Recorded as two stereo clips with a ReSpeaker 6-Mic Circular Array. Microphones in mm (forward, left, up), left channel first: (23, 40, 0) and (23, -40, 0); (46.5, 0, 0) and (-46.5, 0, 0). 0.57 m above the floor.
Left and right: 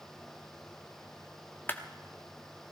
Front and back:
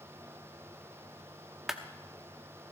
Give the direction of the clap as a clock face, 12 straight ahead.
9 o'clock.